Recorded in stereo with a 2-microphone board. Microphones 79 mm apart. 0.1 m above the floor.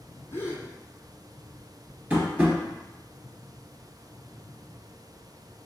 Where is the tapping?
15° right (ahead or behind), 2 m.